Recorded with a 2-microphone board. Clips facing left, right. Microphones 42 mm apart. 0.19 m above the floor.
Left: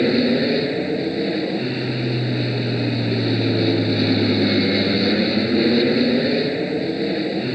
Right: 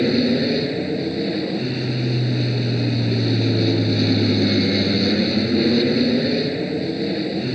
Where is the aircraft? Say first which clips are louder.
Left 1 dB; 15° left (ahead or behind).